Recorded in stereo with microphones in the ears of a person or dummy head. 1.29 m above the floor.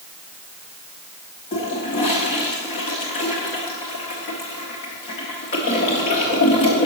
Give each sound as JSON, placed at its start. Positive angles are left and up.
{"t": 1.5, "sound": "a toilet flushing", "side_deg": 35, "distance_m": 1.0}